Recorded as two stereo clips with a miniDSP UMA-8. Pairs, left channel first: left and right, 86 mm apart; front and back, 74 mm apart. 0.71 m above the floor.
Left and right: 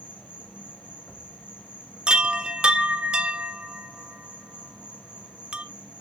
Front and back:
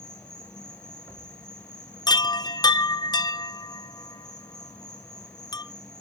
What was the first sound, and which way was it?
An insect, 25° left.